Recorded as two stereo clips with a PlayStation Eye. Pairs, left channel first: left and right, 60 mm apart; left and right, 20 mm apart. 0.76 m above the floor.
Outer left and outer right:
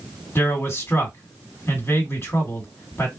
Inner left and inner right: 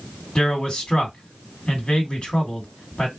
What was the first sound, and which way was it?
A man speaking, 45° left (ahead or behind).